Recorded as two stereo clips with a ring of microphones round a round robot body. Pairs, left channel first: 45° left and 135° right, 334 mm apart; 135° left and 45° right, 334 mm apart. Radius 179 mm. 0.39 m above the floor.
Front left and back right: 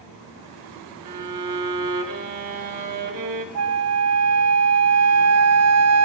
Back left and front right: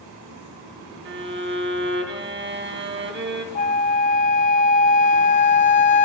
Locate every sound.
1.1 s a violin: 100° right, 1.9 m
3.5 s a flute: 160° right, 0.7 m